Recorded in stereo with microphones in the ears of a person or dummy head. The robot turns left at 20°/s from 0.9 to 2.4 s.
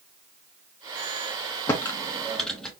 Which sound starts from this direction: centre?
Typing on a keyboard, at 1.7 s.